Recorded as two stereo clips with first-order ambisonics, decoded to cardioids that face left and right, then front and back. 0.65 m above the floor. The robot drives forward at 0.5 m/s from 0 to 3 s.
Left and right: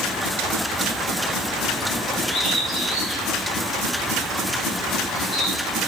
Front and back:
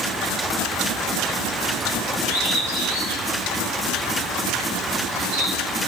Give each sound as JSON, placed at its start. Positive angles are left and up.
{"t": 2.2, "sound": "a bird", "azimuth_deg": 180, "distance_m": 9.0}